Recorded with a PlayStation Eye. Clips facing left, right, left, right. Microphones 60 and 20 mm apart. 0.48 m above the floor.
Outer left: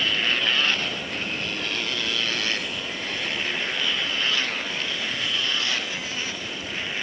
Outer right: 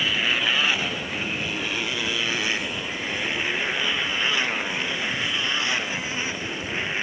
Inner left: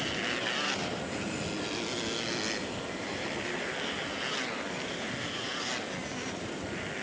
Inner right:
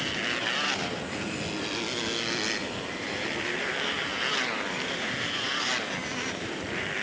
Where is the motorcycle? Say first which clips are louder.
Outer right 1 dB, inner right 3 dB; 10° right (ahead or behind); by 7.0 s 20° right (ahead or behind).